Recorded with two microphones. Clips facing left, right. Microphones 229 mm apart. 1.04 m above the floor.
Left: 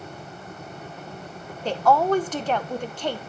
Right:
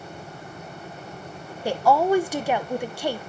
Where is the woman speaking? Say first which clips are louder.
Right 1 dB; 10° right (ahead or behind), 0.6 m.